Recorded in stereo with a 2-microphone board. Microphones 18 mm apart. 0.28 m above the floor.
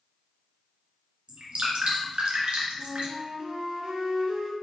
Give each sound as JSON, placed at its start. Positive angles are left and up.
{"t": 1.3, "sound": "dripping", "side_deg": -75, "distance_m": 1.5}
{"t": 2.8, "sound": "a flute", "side_deg": -55, "distance_m": 0.9}